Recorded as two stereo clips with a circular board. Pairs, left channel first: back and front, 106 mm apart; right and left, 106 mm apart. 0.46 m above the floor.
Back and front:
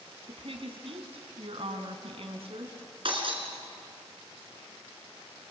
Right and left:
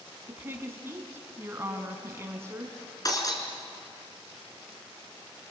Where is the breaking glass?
35° right, 4 m.